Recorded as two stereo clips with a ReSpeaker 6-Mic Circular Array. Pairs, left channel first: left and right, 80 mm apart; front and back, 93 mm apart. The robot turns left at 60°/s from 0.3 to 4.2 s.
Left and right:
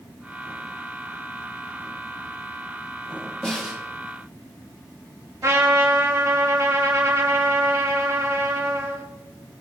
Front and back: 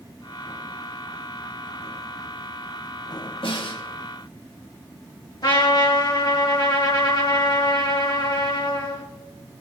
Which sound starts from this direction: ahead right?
A trumpet, at 5.4 s.